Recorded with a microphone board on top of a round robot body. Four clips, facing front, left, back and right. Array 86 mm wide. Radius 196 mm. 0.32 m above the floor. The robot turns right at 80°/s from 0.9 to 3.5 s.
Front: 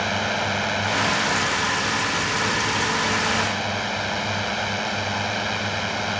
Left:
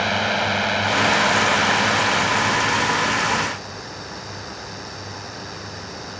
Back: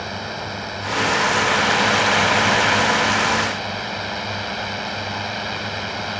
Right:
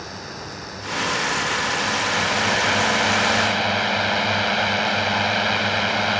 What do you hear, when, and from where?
0.0 s a drone: 70° left; by 6.2 s 80° right